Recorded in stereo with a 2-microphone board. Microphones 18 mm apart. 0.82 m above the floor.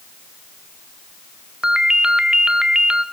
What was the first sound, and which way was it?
A ringtone, 45° right (ahead or behind).